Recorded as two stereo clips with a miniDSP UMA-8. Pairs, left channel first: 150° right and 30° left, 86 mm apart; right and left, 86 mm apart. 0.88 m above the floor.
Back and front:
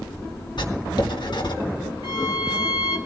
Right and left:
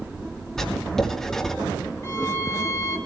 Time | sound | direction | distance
0.6 | writing | 175° right | 1.6 m
2.0 | a violin | 135° right | 1.8 m